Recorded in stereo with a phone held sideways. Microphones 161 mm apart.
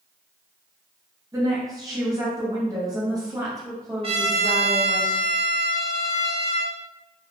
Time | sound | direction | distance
1.3 | a woman speaking | 20° right (ahead or behind) | 1.0 m
4.0 | a trumpet | 40° right (ahead or behind) | 0.7 m